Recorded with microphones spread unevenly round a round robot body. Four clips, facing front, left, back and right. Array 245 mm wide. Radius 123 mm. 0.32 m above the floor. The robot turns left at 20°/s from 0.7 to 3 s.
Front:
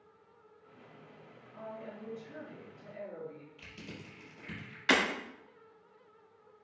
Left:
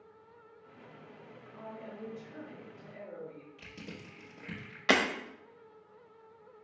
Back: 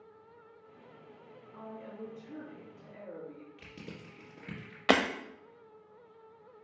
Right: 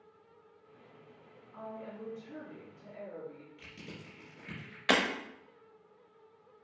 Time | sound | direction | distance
1.5 | a woman speaking | 135° right | 3 m
3.6 | crushing | 170° left | 3 m
4.9 | breaking glass | 175° left | 0.8 m